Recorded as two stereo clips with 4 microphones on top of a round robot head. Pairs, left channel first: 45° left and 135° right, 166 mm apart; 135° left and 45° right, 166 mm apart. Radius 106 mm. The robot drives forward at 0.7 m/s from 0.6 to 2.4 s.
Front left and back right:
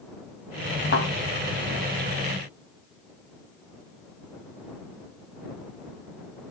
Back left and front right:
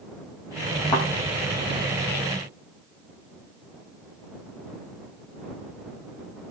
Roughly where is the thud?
Left.